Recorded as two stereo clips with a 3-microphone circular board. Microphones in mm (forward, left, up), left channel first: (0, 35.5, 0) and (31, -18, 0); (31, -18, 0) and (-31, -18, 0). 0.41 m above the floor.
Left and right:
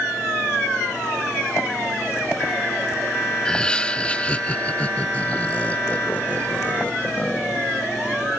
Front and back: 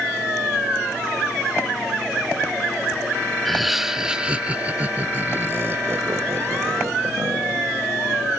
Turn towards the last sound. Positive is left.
turn(degrees=180)